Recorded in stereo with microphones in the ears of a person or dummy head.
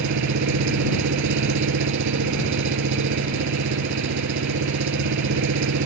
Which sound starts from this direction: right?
An engine running, at 0.0 s.